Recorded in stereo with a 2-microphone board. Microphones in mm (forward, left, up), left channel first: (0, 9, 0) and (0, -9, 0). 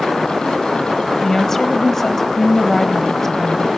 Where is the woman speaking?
20° left (ahead or behind), 1.5 m.